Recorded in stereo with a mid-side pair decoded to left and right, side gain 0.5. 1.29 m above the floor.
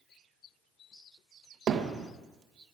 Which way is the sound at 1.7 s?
55° right.